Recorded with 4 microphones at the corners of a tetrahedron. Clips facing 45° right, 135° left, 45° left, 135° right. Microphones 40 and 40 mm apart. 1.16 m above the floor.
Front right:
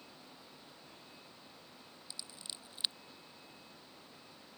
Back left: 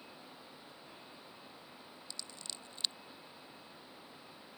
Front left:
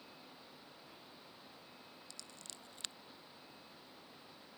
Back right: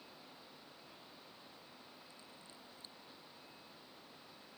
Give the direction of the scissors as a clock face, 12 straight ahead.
11 o'clock.